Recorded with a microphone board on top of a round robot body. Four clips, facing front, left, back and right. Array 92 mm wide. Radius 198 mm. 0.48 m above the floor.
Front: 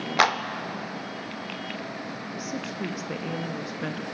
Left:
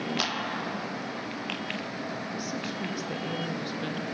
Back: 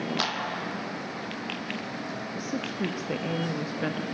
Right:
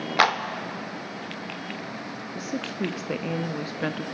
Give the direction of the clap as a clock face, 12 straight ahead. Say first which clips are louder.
Right 10 dB, front 8 dB; 2 o'clock.